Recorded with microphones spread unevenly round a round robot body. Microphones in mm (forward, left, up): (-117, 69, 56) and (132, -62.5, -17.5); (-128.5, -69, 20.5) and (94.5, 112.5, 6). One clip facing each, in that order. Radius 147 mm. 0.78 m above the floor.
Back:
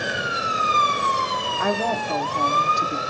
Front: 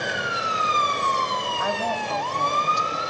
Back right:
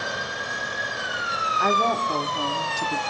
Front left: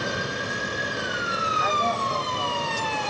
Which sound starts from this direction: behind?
A woman speaking, at 1.6 s.